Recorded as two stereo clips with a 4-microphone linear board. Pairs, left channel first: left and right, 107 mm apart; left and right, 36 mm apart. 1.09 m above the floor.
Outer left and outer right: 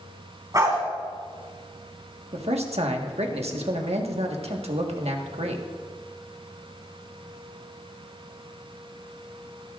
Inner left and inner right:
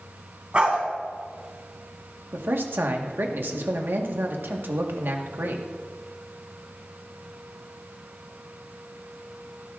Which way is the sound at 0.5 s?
35° right (ahead or behind).